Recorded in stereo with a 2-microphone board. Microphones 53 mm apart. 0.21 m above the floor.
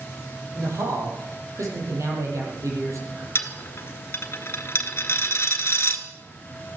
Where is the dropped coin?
50° left (ahead or behind), 1.2 m.